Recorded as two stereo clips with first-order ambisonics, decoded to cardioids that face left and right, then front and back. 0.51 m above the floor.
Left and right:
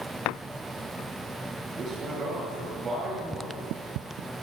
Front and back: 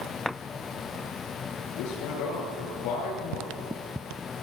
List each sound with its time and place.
1.8 s a man speaking: 20° right, 9.5 m